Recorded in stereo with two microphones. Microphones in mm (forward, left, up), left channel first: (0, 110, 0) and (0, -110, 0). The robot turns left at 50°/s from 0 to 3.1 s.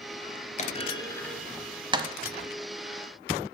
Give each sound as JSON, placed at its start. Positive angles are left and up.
{"t": 0.6, "sound": "a clunk", "side_deg": 35, "distance_m": 1.1}